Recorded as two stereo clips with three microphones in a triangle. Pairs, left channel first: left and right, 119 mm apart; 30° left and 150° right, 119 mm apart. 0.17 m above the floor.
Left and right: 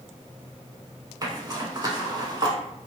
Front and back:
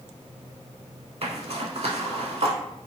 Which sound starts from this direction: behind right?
A zipper, at 1.2 s.